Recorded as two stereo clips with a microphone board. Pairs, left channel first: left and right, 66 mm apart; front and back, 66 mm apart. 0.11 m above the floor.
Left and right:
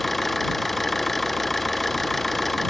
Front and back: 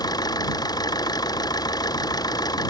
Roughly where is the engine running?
Ahead.